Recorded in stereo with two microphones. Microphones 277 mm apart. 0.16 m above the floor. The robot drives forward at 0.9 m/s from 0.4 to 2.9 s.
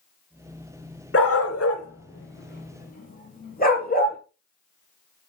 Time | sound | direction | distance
1.1 | a dog barking | 50° left (ahead or behind) | 1.0 m